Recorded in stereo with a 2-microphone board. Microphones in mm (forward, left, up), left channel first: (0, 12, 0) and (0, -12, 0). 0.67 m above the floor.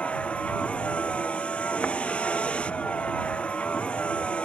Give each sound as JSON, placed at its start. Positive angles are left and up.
{"t": 0.0, "sound": "a vehicle", "side_deg": 60}